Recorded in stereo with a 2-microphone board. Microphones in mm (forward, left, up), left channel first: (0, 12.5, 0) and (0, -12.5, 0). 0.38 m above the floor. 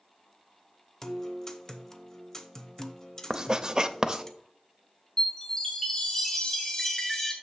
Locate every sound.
1.0 s a guitar: 20° left (ahead or behind), 0.8 m
3.3 s writing: 25° right (ahead or behind), 0.5 m
5.2 s a chime: 25° left (ahead or behind), 1.8 m